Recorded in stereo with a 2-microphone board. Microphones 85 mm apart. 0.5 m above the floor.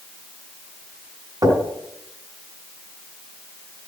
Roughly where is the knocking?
Right.